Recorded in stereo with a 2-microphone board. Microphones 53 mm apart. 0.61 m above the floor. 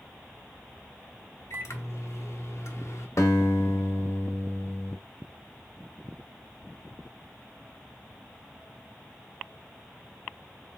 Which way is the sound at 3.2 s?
65° left (ahead or behind).